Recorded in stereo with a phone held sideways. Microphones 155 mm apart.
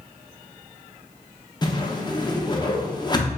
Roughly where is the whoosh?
Left.